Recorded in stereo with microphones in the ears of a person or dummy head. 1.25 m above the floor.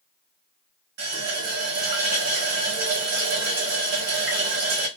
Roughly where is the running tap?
Right.